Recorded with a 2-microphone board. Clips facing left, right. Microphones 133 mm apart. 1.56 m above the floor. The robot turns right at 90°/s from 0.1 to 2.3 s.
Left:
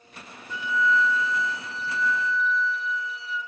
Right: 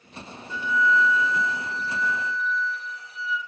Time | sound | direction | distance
0.5 | a flute | 130° left | 5 m